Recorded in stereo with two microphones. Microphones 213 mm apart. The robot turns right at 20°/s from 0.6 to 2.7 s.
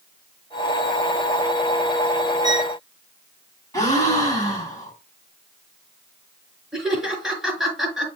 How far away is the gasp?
About 3 m.